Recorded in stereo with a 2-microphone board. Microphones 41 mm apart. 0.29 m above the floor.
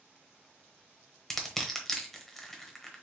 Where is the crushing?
10° left (ahead or behind), 0.9 m.